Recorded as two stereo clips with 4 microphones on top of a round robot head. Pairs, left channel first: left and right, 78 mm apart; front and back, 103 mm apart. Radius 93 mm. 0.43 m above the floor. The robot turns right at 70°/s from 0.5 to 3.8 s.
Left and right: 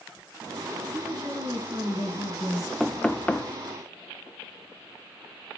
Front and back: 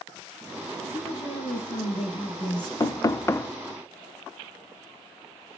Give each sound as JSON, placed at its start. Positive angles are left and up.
{"t": 0.9, "sound": "a woman speaking", "azimuth_deg": -75, "distance_m": 5.0}
{"t": 2.8, "sound": "knocking", "azimuth_deg": 5, "distance_m": 0.6}